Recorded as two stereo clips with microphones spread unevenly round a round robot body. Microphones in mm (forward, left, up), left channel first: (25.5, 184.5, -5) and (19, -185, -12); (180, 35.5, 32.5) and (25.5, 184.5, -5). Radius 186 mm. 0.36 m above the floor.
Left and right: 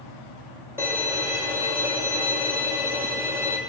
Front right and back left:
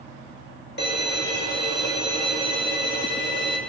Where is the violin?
5° right, 2 m.